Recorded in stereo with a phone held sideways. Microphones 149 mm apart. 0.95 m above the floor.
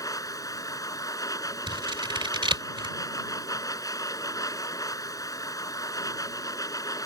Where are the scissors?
30° right (ahead or behind).